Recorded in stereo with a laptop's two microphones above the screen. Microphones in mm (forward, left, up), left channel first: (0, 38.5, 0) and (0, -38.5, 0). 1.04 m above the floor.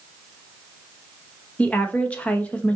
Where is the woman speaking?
15° left (ahead or behind), 1.2 m.